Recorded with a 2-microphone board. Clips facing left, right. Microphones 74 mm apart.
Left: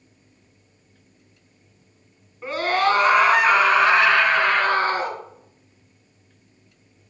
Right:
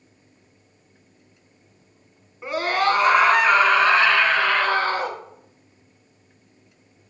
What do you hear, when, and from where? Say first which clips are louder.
2.4 s a scream: left 1 dB; 10° right (ahead or behind), 2.5 m; by 5.2 s 20° left (ahead or behind), 3.5 m